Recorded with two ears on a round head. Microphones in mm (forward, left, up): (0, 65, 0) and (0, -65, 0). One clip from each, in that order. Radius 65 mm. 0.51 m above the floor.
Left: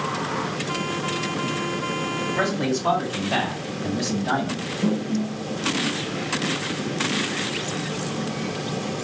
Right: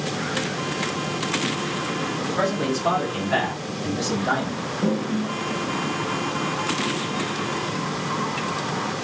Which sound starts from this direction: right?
A toilet flushing, at 4.8 s.